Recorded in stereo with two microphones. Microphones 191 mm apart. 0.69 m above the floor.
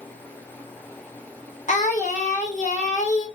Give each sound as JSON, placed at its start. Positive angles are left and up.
{"t": 1.7, "sound": "singing", "side_deg": 40, "distance_m": 0.7}